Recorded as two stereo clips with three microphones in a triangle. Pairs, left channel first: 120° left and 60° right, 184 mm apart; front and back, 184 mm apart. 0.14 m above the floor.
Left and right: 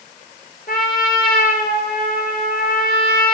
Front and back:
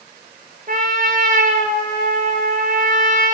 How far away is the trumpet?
About 1.0 m.